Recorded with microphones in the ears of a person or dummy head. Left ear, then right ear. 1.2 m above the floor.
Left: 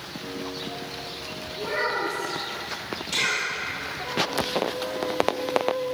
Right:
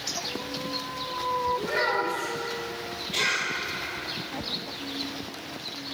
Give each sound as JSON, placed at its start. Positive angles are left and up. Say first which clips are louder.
{"t": 1.6, "sound": "a child speaking", "louder": "even", "side_deg": 10, "distance_m": 1.8}
{"t": 3.1, "sound": "a cough", "louder": "left 1 dB", "side_deg": 60, "distance_m": 2.0}